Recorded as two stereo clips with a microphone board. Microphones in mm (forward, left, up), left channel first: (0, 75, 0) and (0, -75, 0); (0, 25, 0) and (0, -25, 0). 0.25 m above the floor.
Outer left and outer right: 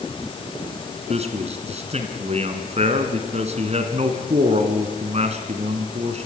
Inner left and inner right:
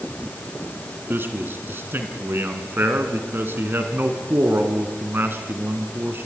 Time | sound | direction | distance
1.1 | a man speaking | 45° right (ahead or behind) | 2.5 m